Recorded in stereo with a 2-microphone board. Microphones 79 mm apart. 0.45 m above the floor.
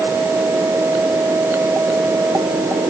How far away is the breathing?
I don't hear breathing.